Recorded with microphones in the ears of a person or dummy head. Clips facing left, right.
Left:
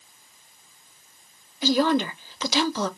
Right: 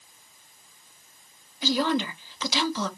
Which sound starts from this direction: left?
A woman speaking, at 1.6 s.